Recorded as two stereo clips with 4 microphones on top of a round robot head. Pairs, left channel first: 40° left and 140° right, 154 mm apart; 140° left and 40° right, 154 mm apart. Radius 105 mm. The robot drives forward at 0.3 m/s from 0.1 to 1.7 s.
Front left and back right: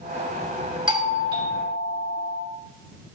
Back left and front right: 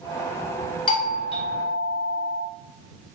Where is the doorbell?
175° left, 2 m.